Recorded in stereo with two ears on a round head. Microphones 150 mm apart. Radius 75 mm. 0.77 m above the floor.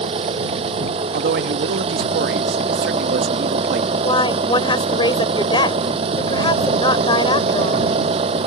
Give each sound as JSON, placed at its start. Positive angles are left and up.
{"t": 0.0, "sound": "an engine running", "side_deg": -35}
{"t": 1.1, "sound": "a man speaking", "side_deg": -60}
{"t": 4.0, "sound": "a woman speaking", "side_deg": 30}